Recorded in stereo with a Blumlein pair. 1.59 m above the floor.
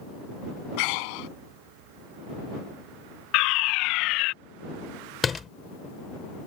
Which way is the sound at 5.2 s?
15° left.